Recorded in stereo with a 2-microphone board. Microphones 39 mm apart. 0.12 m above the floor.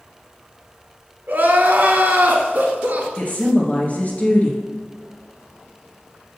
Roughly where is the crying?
Right.